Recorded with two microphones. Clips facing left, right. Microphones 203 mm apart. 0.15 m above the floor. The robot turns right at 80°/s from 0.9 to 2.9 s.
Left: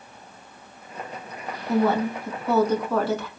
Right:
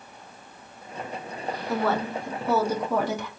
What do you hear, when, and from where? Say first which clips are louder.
1.7 s a woman speaking: left 5 dB; 20° left (ahead or behind), 1.1 m; by 3.3 s 15° right (ahead or behind), 1.1 m